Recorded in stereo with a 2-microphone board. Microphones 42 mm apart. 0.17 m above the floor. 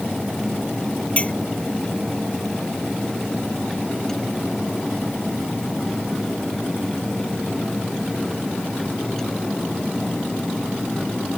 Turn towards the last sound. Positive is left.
turn(degrees=30)  # may be behind; listen again after turning